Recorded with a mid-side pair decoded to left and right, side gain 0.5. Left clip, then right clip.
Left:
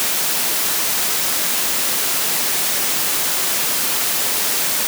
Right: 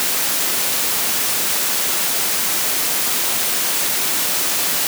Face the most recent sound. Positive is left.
No sound to turn to.